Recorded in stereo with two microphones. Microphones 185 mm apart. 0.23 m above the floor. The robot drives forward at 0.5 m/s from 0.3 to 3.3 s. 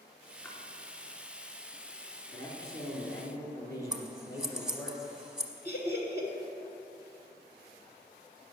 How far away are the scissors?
About 0.9 m.